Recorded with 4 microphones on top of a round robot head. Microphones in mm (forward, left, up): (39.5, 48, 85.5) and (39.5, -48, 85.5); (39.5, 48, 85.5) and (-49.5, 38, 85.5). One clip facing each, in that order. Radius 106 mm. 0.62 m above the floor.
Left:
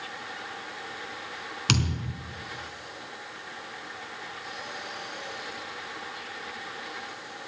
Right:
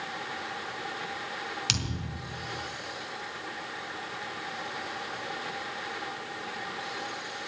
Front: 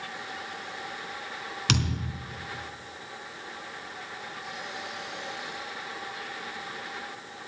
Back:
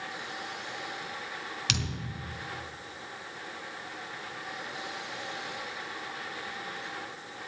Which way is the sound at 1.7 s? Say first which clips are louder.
Left 6 dB, front 10 dB; 50° left.